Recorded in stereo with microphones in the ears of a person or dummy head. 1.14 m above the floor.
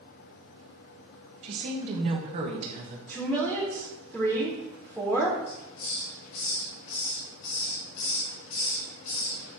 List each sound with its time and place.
1.4 s a woman speaking: 35° right (ahead or behind), 1.3 m
3.1 s a woman speaking: 10° left (ahead or behind), 1.6 m
5.5 s a hiss: 75° left (ahead or behind), 4 m